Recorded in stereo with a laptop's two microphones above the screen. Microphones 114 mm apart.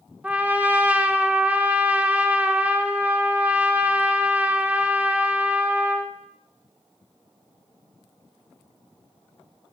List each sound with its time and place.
0.2 s a trumpet: 15° right (ahead or behind), 0.6 m